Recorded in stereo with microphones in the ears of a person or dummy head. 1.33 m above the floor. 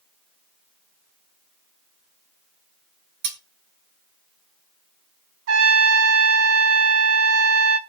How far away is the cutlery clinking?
About 1.6 m.